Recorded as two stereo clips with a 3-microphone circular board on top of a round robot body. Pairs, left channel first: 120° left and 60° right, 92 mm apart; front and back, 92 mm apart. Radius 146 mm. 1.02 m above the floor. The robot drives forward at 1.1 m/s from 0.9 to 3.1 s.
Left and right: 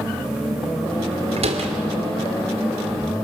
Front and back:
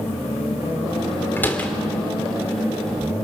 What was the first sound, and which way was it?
A door slam, 70° right.